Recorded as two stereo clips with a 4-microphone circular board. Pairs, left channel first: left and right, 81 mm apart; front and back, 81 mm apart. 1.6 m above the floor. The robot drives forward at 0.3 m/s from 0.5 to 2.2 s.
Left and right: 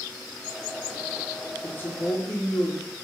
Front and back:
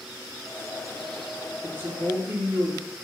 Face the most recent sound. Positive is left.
turn(degrees=145)